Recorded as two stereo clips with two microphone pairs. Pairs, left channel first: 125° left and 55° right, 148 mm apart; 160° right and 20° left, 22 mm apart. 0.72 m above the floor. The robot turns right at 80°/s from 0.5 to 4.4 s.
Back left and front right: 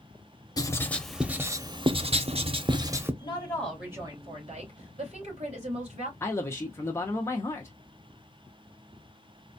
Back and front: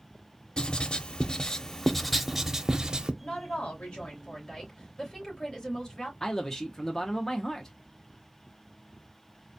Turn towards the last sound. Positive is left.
turn(degrees=170)